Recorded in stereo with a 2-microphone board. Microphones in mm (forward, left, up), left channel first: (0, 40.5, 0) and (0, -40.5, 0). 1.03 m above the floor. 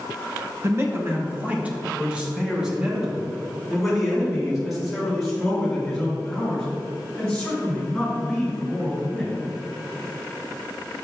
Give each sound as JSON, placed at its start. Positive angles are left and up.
{"t": 0.6, "sound": "a man speaking", "side_deg": -35, "distance_m": 1.0}